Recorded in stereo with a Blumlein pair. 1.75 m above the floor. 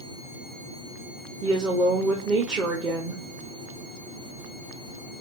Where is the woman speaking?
25° right, 1.1 m.